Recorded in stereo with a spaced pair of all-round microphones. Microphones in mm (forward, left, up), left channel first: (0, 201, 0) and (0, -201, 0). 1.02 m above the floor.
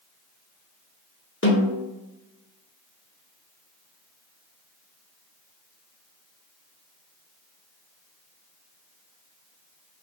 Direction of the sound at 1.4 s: 30° left (ahead or behind).